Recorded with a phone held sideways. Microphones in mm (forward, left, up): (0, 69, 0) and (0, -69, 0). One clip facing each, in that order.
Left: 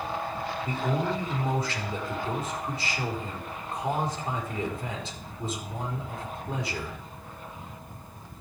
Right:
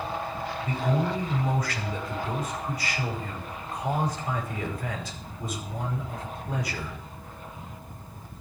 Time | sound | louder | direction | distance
0.7 | a man speaking | right 2 dB | 30° left (ahead or behind) | 5 m